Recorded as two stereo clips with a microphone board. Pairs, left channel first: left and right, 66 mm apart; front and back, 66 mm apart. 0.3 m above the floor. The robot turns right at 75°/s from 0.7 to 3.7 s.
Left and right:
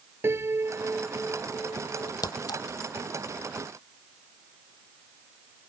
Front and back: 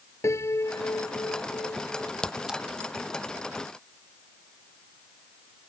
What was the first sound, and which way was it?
A piano, 40° right.